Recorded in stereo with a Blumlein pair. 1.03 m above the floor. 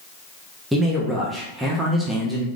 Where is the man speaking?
10° right, 1.1 m.